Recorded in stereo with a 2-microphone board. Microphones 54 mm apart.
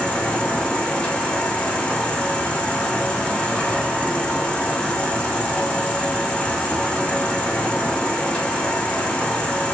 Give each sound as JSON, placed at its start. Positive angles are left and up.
{"t": 0.0, "sound": "an insect", "side_deg": 20, "distance_m": 1.0}